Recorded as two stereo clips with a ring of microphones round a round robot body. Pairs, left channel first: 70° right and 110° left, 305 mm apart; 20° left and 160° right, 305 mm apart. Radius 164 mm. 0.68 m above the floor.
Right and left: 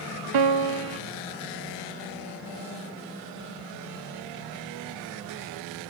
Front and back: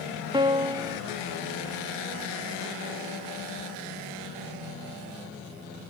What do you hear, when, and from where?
0.3 s a piano: 125° left, 0.5 m